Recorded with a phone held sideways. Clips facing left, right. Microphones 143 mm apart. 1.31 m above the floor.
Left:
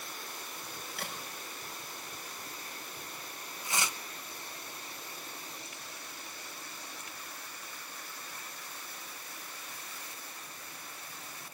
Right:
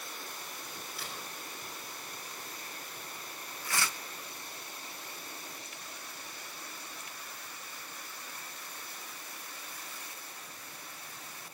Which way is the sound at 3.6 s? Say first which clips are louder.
Even; 20° left (ahead or behind).